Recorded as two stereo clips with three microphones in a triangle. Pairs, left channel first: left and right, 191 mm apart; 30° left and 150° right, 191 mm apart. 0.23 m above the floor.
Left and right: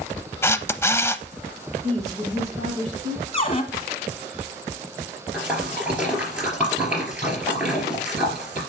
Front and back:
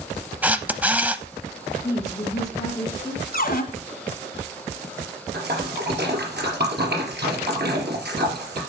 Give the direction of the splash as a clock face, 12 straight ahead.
6 o'clock.